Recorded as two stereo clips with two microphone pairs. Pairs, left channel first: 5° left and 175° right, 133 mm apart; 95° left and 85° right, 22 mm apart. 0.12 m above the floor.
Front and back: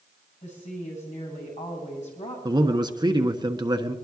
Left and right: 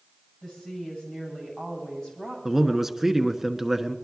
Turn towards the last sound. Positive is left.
turn(degrees=-150)